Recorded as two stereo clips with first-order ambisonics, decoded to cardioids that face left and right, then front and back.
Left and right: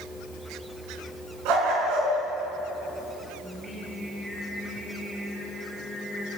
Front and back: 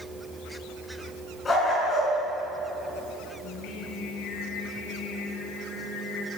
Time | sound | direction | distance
1.4 | a dog barking | 70° right | 6.5 m
3.4 | singing | 10° right | 3.5 m